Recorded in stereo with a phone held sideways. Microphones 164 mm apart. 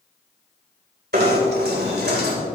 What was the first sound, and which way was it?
Knocking, 85° right.